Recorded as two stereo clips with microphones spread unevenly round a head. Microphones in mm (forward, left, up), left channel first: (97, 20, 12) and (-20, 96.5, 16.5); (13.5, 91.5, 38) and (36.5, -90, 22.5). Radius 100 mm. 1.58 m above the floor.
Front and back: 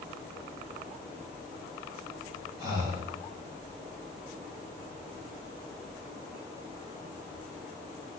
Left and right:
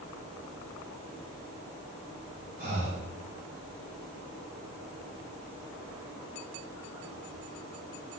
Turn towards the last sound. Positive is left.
turn(degrees=-135)